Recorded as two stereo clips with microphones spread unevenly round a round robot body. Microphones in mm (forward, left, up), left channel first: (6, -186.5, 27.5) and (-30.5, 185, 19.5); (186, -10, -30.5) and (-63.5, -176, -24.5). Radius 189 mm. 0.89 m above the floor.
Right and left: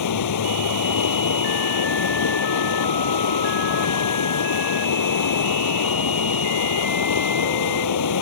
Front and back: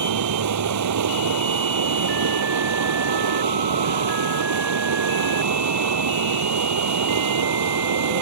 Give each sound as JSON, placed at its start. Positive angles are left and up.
{"t": 0.0, "sound": "running water", "azimuth_deg": -125}